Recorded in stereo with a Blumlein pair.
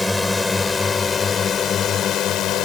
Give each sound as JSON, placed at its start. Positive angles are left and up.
{"t": 0.0, "sound": "a drone", "azimuth_deg": 10}